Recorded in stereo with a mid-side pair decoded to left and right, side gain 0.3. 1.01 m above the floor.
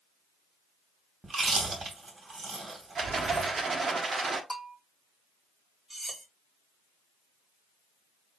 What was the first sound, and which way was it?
Chewing, 50° right.